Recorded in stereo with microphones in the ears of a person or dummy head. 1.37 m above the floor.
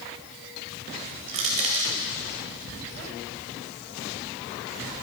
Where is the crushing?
35° right (ahead or behind), 2 m.